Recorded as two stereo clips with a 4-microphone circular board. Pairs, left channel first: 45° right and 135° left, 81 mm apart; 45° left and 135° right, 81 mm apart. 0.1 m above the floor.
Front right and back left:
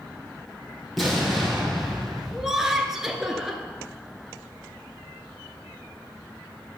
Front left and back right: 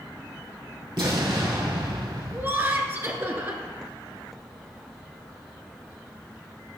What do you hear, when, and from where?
1.0 s an explosion: 135° right, 3.5 m
2.3 s laughter: 145° right, 1.6 m